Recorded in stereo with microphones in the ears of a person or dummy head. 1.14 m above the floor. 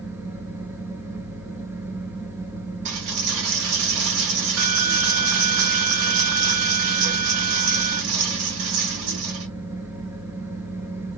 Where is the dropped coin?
65° right (ahead or behind), 1.6 m.